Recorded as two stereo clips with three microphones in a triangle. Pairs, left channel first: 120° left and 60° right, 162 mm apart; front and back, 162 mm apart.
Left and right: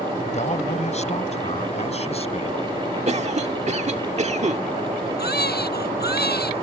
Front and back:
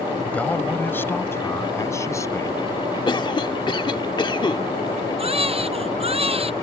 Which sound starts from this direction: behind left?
A baby crying, at 5.2 s.